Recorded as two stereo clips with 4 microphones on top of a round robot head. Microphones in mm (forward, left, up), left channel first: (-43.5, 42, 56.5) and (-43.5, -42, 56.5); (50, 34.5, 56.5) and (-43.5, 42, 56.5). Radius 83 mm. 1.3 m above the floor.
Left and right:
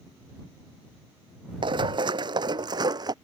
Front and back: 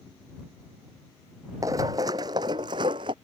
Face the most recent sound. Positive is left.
turn(degrees=-130)